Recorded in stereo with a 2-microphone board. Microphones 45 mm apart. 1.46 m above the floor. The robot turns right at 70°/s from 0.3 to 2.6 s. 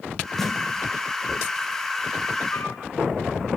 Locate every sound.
0.4 s a snare drum: 10° left (ahead or behind), 3 m; by 0.5 s centre (ahead or behind), 3 m
2.5 s a flute: 75° left (ahead or behind), 4 m; by 2.8 s 70° left (ahead or behind), 4 m